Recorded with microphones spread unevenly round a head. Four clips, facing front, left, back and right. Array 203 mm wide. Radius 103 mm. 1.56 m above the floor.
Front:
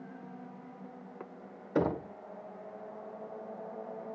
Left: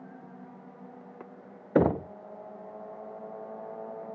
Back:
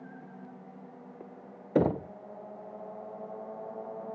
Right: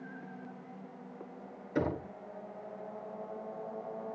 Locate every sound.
1.8 s knocking: 110° left, 0.5 m